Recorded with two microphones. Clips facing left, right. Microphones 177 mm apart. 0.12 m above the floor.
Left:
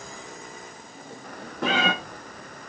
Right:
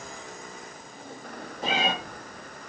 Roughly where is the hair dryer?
No hair dryer in this recording.